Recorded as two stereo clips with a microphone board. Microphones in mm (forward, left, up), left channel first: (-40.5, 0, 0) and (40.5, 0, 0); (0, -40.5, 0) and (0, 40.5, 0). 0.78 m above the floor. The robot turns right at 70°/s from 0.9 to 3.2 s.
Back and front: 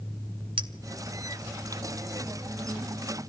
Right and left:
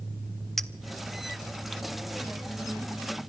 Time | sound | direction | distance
0.6 | a clink | 5° right | 1.0 m